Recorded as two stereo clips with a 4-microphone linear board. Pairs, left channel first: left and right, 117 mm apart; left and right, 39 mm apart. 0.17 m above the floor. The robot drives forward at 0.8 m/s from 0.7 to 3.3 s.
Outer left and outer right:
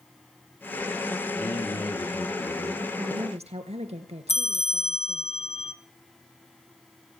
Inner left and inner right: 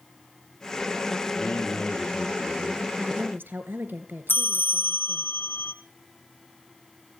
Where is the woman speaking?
65° right (ahead or behind), 2.5 m.